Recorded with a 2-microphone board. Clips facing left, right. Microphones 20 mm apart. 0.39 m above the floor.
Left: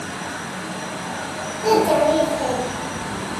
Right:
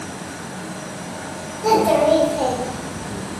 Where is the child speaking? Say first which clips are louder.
Right 1 dB; 5° right (ahead or behind), 0.8 m; by 3.1 s 50° right (ahead or behind), 0.8 m.